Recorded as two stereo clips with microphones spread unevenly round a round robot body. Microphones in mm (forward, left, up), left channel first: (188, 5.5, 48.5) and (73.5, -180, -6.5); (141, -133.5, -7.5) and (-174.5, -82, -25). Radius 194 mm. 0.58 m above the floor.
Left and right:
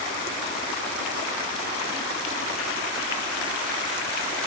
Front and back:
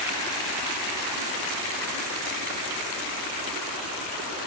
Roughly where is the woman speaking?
No woman speaking in this recording.